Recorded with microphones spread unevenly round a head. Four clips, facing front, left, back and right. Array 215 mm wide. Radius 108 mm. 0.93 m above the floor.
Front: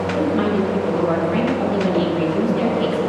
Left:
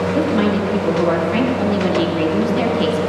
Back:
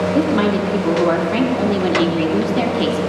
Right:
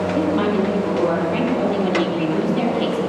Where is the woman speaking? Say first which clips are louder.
Left 1 dB, back 1 dB; 165° left, 3 m.